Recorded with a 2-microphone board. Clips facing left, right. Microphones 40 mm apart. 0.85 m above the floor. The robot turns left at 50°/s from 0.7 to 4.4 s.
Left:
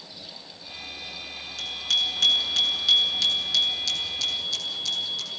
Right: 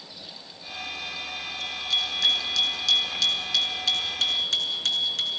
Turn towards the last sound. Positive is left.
turn(degrees=-55)